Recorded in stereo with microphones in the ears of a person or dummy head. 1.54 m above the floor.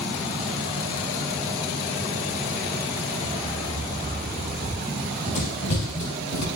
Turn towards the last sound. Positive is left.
turn(degrees=60)  # may be behind; listen again after turning